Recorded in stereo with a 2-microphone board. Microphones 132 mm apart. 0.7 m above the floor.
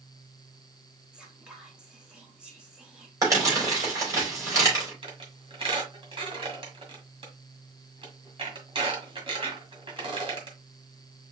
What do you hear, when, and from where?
1.1 s whispering: 5° right (ahead or behind), 0.8 m
3.2 s crumpling: 25° right (ahead or behind), 3.5 m
5.0 s a squeak: 40° right (ahead or behind), 1.7 m